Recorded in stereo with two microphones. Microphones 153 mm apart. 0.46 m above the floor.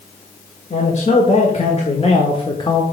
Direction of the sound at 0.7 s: 55° left (ahead or behind).